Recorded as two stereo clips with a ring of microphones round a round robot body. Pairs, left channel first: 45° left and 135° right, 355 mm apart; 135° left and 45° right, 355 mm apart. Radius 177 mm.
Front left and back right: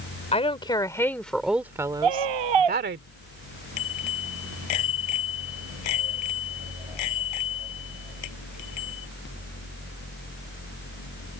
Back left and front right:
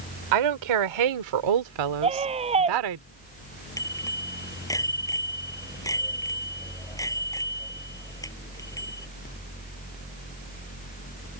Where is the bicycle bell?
55° left.